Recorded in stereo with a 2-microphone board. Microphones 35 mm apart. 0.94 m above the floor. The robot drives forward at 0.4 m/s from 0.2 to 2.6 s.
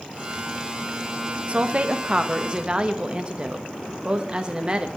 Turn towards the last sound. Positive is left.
turn(degrees=-25)  # may be behind; listen again after turning